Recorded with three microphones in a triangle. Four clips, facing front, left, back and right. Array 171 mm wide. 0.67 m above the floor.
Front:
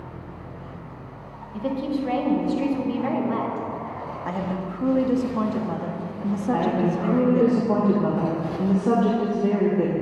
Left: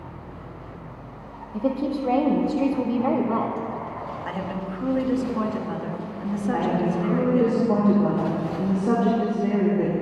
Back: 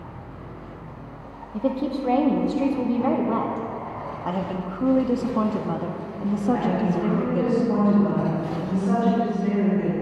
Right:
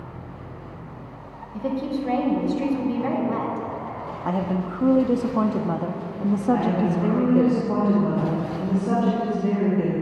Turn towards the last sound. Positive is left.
turn(degrees=20)